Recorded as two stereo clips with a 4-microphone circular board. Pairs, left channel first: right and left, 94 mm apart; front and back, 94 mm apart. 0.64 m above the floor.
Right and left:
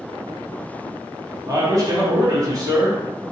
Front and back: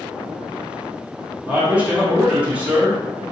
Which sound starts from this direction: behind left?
A man speaking, at 1.5 s.